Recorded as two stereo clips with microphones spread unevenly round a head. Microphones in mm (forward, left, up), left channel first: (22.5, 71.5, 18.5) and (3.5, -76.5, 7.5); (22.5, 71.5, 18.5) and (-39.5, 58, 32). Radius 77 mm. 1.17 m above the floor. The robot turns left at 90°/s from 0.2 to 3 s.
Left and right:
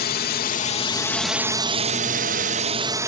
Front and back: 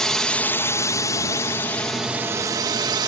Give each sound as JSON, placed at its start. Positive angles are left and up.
{"t": 0.0, "sound": "a drone", "azimuth_deg": 90}